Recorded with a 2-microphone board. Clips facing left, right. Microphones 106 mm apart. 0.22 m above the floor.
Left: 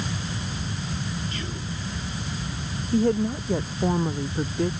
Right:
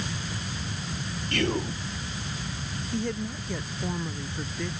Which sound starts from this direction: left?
A woman speaking, at 2.9 s.